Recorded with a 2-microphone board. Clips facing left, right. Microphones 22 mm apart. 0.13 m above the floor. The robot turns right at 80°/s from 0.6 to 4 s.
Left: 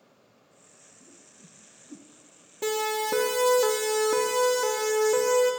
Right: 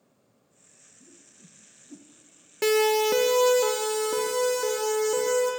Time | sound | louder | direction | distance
1.0 | a whoosh | right 1 dB | 10° right (ahead or behind) | 1.9 m
2.6 | a siren | right 6 dB | 60° right (ahead or behind) | 2 m